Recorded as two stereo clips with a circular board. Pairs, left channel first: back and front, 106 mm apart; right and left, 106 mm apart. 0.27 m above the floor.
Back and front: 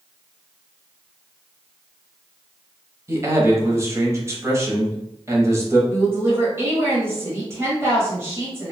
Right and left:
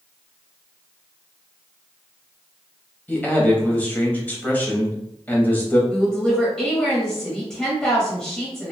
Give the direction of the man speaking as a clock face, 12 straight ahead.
1 o'clock.